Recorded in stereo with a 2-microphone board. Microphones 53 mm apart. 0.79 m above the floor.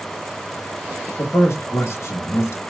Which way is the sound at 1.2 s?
60° left (ahead or behind).